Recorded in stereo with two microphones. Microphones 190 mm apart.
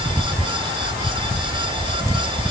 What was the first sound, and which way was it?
Only background noise.